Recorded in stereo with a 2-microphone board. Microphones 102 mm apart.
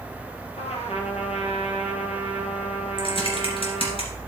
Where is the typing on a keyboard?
55° left (ahead or behind), 2.5 m.